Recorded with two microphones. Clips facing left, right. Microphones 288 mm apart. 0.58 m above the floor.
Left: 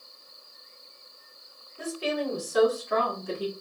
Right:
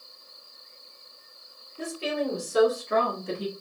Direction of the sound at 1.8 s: 25° right (ahead or behind).